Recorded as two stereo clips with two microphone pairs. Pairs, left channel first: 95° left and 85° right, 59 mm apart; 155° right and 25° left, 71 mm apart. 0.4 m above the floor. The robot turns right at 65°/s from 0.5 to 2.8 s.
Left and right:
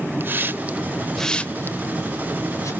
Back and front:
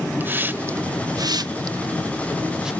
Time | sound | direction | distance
0.2 | a hiss | 35° right | 0.5 m